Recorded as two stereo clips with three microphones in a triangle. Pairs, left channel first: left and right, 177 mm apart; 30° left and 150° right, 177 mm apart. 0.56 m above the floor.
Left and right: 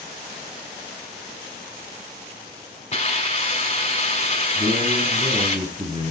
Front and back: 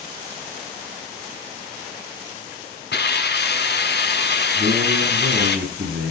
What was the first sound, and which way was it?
A hiss, 35° left.